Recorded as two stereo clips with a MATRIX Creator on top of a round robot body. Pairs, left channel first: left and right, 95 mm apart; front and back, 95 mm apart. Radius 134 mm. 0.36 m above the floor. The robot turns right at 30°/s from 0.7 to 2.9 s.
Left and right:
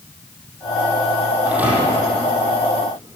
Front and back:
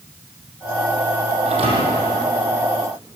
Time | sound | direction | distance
1.4 | a thud | 170° right | 6 m